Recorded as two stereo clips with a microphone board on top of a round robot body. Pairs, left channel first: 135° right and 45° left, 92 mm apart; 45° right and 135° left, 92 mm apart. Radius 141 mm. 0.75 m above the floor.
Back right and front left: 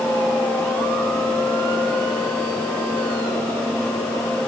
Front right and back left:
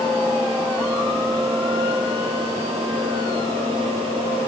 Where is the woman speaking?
I don't hear a woman speaking.